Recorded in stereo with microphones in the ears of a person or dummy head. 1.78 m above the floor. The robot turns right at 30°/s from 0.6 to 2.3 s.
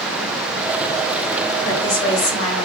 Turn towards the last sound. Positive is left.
turn(degrees=75)  # may be behind; listen again after turning